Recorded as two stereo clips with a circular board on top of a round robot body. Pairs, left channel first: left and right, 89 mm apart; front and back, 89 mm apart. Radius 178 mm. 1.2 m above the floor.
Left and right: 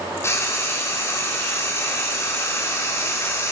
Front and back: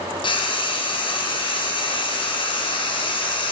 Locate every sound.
0.2 s frying: 30° left, 4.5 m